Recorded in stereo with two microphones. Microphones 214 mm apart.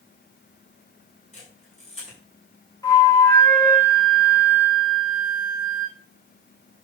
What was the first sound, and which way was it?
A camera shutter, 35° left (ahead or behind).